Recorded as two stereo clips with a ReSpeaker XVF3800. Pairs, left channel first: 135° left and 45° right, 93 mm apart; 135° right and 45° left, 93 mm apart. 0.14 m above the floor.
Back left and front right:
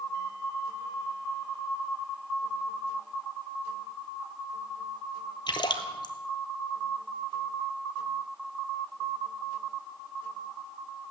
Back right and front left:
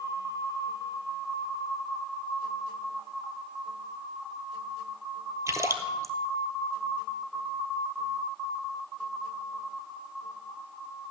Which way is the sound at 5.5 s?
100° left.